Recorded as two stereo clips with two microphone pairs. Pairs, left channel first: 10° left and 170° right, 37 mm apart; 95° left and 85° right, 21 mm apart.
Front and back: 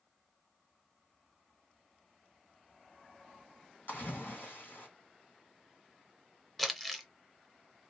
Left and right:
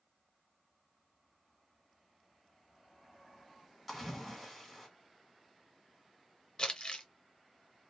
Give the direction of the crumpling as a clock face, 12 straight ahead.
9 o'clock.